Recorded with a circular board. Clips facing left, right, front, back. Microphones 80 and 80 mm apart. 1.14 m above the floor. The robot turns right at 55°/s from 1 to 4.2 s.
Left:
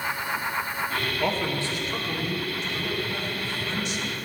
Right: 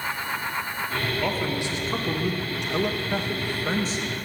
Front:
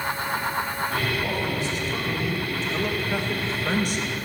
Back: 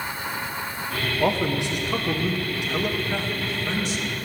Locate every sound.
1.2 s a man speaking: 175° left, 1.2 m; by 4.1 s 25° right, 1.2 m